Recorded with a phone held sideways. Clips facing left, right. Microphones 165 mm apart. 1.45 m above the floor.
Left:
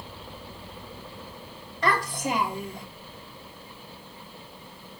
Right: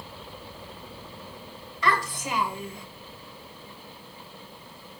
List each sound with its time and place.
1.8 s a child speaking: 45° left (ahead or behind), 2 m